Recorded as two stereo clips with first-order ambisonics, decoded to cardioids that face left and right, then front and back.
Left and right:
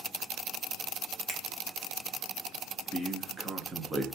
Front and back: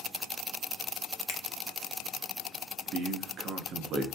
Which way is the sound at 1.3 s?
5° left.